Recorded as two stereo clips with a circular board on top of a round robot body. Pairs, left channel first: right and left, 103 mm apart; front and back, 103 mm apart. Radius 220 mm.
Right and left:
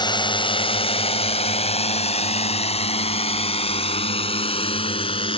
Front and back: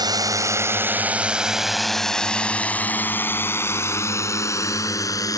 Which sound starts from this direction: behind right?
A drone, at 0.0 s.